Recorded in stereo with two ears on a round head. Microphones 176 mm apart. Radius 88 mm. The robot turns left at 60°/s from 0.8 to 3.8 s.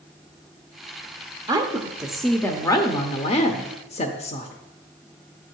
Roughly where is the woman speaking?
Behind right.